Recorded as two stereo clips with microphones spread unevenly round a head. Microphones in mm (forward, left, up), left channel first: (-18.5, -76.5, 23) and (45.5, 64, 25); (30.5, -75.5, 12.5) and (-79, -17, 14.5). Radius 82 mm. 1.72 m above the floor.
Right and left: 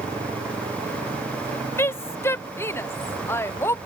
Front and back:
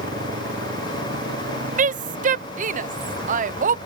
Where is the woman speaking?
170° left.